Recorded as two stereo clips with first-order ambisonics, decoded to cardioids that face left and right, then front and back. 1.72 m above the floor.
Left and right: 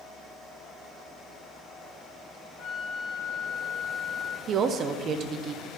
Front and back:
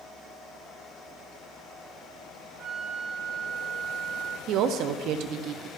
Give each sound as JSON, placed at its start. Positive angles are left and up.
{"t": 2.6, "sound": "a flute", "azimuth_deg": 135, "distance_m": 1.2}
{"t": 4.5, "sound": "a woman speaking", "azimuth_deg": -145, "distance_m": 0.5}